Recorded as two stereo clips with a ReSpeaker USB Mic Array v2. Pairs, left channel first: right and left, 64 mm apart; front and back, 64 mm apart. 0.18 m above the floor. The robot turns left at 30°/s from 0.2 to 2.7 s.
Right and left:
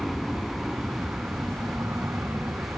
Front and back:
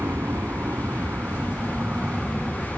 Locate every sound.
0.0 s an aircraft: 175° left; by 2.8 s 100° left